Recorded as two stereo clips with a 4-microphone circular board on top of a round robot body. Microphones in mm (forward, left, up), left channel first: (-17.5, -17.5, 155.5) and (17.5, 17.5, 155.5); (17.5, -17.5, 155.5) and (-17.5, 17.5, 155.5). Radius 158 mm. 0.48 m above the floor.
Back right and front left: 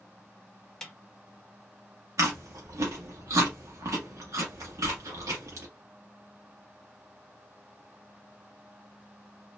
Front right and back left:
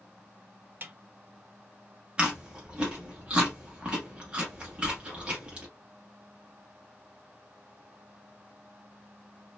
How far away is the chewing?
About 0.5 m.